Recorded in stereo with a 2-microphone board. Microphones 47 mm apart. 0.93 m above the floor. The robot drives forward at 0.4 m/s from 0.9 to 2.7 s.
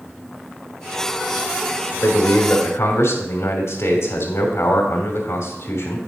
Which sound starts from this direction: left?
A man speaking, at 2.0 s.